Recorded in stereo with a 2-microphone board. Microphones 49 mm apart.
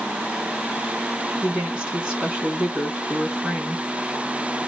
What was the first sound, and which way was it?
A woman speaking, 30° right (ahead or behind).